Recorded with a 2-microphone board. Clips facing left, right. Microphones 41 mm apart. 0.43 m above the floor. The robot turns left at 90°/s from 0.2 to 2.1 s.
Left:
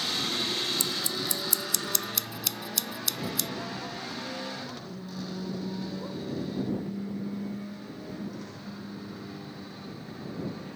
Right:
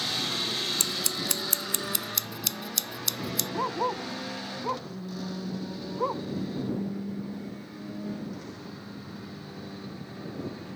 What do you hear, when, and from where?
0.8 s scissors: 65° right (ahead or behind); by 3.5 s centre (ahead or behind)
3.5 s a dog barking: 60° right (ahead or behind)